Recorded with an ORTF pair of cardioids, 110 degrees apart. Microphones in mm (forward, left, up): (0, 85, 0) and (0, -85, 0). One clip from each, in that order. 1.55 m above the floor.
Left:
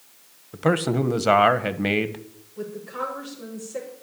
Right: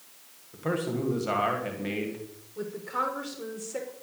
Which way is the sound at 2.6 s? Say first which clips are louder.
Even; 25° right.